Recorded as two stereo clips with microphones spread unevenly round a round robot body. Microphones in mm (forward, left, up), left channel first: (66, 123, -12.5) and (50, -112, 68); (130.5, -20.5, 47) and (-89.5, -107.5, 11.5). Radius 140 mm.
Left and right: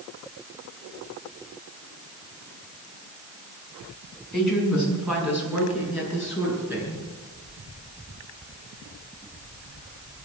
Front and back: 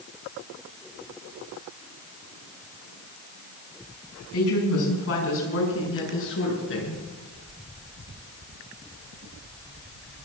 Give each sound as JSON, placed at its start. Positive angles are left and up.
{"t": 4.3, "sound": "a woman speaking", "azimuth_deg": 0, "distance_m": 6.0}